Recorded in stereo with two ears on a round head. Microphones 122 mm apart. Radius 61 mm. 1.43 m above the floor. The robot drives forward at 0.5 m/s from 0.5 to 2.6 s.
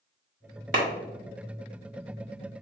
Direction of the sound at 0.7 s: 60° right (ahead or behind).